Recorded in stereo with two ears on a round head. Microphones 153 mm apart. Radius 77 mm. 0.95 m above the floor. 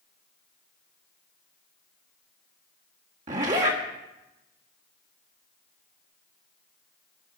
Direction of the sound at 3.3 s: 45° right (ahead or behind).